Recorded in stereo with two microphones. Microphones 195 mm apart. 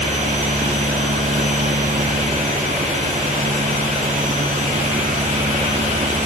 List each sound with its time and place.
Only background noise.